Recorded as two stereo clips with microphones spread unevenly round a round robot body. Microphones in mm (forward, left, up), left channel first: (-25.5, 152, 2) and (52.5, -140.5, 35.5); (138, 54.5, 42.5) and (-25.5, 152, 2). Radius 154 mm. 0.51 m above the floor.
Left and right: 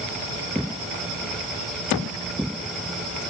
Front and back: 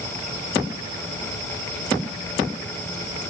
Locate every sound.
Only background noise.